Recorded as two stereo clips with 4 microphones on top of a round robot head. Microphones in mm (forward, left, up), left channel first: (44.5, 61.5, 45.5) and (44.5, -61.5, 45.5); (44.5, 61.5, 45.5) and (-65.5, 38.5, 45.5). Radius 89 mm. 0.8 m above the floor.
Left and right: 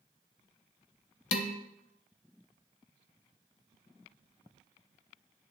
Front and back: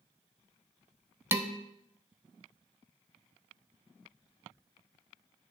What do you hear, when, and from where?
1.3 s dishes clattering: 120° left, 0.7 m